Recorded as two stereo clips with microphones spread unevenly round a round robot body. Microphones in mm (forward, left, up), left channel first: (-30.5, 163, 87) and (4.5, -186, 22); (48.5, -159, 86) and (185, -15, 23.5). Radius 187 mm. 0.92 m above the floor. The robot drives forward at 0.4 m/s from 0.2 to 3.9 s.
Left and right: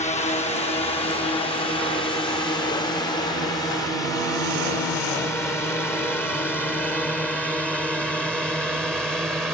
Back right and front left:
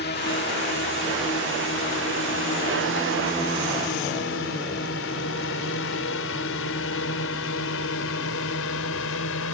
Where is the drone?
170° left; by 9.6 s 170° right.